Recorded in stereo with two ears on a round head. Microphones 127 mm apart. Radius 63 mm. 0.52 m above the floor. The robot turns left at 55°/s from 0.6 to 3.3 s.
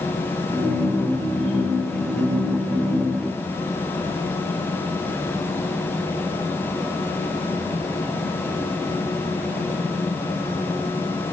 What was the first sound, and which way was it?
Only background noise.